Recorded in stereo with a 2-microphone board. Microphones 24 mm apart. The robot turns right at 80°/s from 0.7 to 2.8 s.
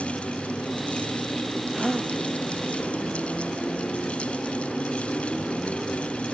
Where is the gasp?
170° left; by 2.1 s 155° right.